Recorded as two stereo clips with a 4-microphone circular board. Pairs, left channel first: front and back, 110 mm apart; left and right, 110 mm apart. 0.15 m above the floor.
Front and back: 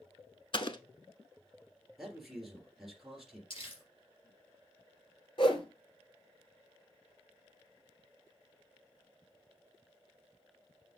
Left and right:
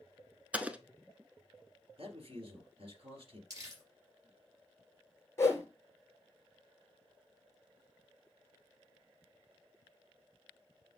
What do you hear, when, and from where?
0.5 s an explosion: 15° right, 0.7 m
2.0 s a man speaking: 95° right, 3 m
3.5 s crumpling: 35° right, 3.5 m
5.4 s a whoosh: 25° left, 1.7 m